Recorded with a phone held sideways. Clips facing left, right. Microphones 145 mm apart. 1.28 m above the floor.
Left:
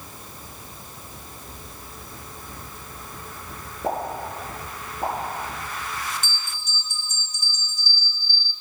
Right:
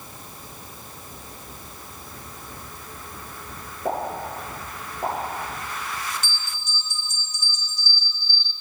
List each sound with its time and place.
3.8 s a pop: 55° left (ahead or behind), 6 m
6.2 s a bell: 55° left (ahead or behind), 3 m